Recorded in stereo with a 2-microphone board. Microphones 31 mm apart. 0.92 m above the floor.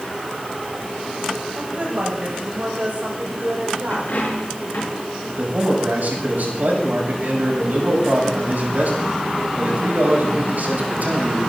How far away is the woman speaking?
About 5 m.